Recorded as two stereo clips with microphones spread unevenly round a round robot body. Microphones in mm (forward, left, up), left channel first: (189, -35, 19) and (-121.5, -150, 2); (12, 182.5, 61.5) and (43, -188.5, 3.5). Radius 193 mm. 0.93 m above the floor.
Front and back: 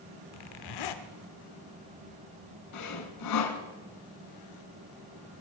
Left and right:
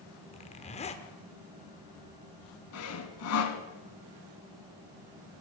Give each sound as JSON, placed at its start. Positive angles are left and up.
{"t": 0.3, "sound": "a zipper", "azimuth_deg": 25, "distance_m": 1.2}
{"t": 2.7, "sound": "sawing", "azimuth_deg": 55, "distance_m": 1.5}